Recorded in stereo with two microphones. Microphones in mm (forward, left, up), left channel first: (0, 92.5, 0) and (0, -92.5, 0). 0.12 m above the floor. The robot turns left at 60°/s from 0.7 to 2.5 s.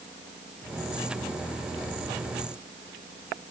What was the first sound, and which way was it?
Only background noise.